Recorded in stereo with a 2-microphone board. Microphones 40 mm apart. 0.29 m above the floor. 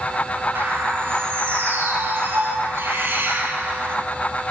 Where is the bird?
75° right (ahead or behind), 4.5 m.